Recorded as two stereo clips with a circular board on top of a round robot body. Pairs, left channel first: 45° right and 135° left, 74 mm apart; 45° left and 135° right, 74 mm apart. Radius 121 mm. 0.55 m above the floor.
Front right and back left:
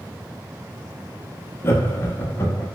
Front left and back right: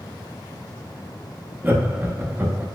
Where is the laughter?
85° right, 0.9 m.